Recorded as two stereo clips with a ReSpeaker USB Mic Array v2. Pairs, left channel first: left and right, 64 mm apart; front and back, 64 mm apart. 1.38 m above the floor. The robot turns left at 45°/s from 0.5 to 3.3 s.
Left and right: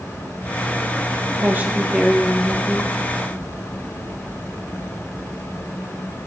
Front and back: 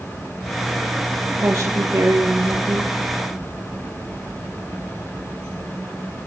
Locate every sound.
1.4 s a woman speaking: 140° right, 1.5 m; by 2.9 s 150° left, 1.5 m